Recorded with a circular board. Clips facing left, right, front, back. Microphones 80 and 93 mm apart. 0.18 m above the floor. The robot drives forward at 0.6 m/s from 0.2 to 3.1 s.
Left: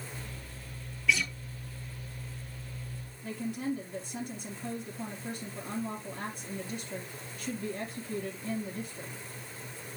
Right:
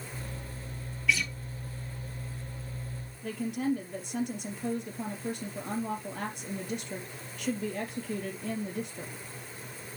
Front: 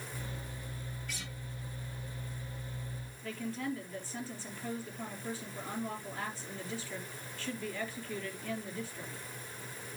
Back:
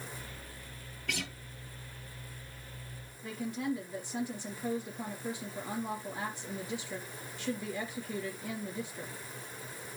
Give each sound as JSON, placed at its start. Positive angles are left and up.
{"t": 1.1, "sound": "a guitar", "azimuth_deg": 180, "distance_m": 0.9}
{"t": 3.2, "sound": "a woman speaking", "azimuth_deg": -110, "distance_m": 4.0}